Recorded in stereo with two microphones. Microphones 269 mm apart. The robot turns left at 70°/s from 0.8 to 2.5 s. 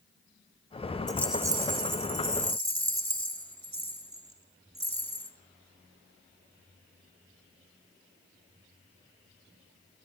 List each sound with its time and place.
1.1 s a rattle: 15° left, 0.7 m; by 5.3 s 85° right, 0.7 m